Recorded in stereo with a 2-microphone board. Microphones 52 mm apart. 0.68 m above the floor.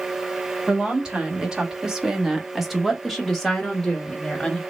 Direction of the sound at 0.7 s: 15° right (ahead or behind).